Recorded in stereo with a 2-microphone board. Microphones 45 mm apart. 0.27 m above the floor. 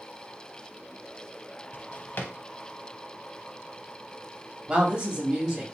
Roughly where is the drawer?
Left.